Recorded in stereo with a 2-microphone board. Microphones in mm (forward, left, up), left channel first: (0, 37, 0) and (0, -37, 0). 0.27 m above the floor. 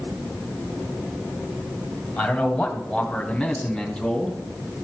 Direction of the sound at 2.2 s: 5° left (ahead or behind).